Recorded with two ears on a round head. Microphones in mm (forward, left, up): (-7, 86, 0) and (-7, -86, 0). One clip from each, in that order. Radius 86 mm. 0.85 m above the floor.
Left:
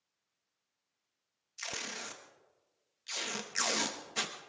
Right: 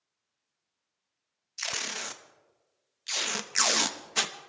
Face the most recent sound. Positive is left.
turn(degrees=-25)  # may be behind; listen again after turning